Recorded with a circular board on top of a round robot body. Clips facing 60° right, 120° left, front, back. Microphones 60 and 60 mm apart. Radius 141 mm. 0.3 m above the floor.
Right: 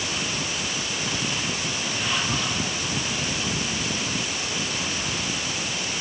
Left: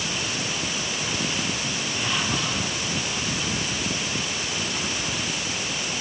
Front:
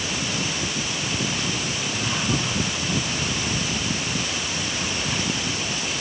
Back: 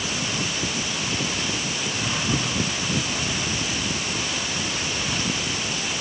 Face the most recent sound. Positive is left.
No sound to turn to.